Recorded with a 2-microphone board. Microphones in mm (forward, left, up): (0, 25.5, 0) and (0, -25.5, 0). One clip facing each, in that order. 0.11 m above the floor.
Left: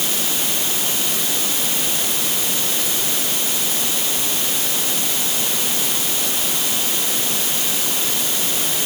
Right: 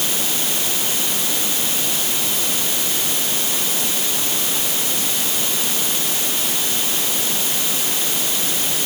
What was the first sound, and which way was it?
Only background noise.